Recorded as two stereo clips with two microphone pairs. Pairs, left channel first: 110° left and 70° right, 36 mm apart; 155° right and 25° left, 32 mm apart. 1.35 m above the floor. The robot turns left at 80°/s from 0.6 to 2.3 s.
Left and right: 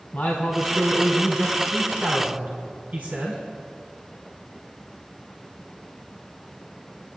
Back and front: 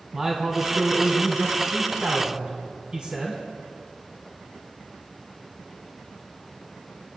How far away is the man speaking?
About 2 m.